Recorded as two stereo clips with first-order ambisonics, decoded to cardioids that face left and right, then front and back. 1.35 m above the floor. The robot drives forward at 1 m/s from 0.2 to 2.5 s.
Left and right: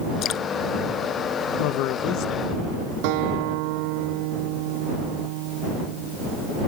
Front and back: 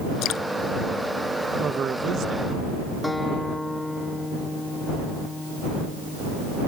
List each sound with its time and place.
0.2 s dripping: 40° left
1.6 s a man speaking: 110° left; by 2.6 s 135° left
3.0 s a guitar: 85° right